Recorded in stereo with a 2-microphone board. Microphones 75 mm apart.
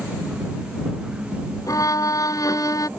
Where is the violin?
50° left (ahead or behind).